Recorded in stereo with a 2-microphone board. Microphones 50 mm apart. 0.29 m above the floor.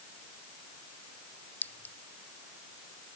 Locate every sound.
1.6 s a clink: 35° left (ahead or behind)